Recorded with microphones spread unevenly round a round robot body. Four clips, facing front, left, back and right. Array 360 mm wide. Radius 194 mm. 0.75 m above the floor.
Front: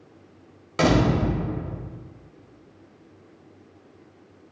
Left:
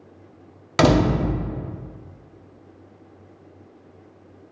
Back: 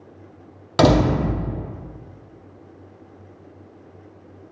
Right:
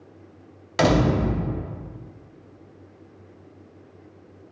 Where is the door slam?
155° left, 0.7 m.